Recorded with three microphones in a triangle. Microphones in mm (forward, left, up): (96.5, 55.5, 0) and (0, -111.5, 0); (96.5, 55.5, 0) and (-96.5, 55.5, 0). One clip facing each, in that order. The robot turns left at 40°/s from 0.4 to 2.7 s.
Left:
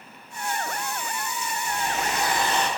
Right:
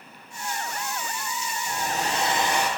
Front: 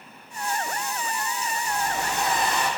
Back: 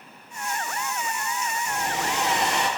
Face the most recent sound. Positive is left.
turn(degrees=160)